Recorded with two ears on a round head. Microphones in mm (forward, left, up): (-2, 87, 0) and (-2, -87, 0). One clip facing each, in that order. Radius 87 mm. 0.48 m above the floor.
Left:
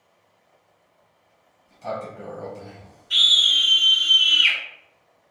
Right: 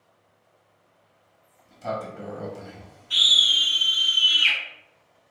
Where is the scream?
5° left (ahead or behind), 1.8 m.